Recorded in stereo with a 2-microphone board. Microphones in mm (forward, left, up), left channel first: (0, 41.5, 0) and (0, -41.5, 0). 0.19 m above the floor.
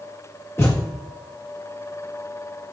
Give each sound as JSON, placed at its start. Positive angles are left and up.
{"t": 0.6, "sound": "a thud", "side_deg": 30, "distance_m": 8.0}